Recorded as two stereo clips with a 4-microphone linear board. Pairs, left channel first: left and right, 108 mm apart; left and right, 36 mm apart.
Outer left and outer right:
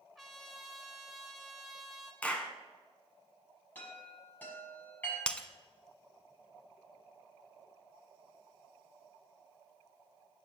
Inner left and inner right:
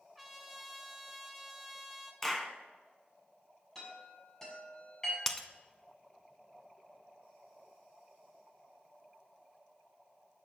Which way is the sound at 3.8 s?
15° left (ahead or behind).